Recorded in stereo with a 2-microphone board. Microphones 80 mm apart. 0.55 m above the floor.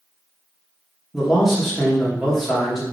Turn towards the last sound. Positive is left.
turn(degrees=0)  # may be behind; listen again after turning